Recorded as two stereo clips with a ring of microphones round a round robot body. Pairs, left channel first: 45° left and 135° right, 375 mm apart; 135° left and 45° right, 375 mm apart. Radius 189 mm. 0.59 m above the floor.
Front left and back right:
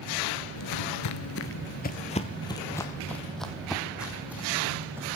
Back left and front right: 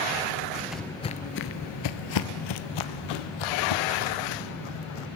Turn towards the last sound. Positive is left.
turn(degrees=140)